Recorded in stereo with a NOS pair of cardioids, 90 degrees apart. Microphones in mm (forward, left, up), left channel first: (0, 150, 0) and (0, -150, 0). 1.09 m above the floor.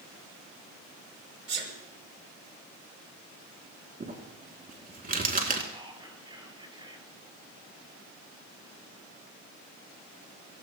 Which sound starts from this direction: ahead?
Whispering, at 5.7 s.